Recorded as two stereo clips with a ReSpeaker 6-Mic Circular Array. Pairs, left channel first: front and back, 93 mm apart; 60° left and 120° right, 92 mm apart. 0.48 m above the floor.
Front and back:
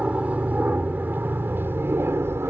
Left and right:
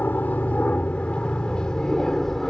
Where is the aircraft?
115° left; by 2.5 s 145° left.